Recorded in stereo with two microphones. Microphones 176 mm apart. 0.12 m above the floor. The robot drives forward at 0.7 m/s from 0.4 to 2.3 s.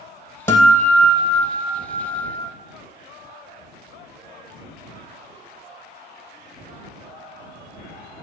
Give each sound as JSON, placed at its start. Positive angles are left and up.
{"t": 0.5, "sound": "a guitar", "side_deg": 15, "distance_m": 1.6}